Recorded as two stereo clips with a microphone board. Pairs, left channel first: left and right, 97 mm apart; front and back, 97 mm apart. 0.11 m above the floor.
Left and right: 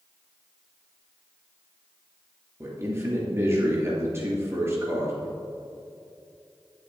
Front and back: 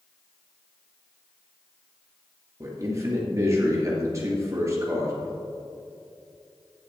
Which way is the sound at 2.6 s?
140° right.